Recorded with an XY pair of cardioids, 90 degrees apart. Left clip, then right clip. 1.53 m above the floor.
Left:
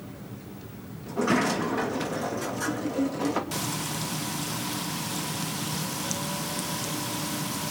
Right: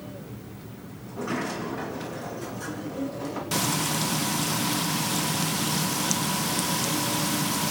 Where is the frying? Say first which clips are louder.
Right 5 dB; 40° right, 1.0 m.